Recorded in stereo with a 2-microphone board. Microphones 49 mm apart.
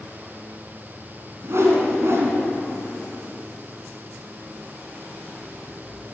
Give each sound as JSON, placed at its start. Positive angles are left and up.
{"t": 1.4, "sound": "a whoosh", "side_deg": -60, "distance_m": 2.5}